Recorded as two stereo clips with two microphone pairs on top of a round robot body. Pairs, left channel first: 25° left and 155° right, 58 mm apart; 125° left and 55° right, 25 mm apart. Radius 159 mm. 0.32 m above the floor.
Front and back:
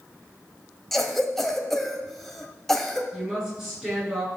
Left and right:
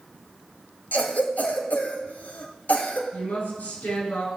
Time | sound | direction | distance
0.9 | a cough | 110° left | 3 m
3.1 | a woman speaking | 120° left | 7 m